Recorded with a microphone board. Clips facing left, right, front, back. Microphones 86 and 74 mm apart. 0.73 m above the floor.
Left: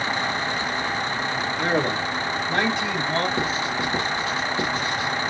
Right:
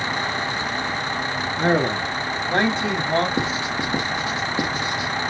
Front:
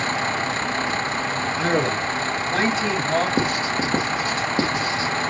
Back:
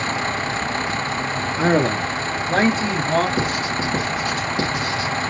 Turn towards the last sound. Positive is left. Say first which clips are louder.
# right 1 dB, even
turn(degrees=-35)